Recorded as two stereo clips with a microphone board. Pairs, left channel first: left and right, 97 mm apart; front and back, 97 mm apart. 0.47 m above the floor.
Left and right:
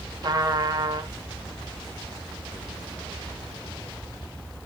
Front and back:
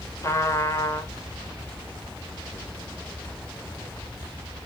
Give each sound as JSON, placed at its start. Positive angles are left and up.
{"t": 0.2, "sound": "a trumpet", "azimuth_deg": -55, "distance_m": 1.0}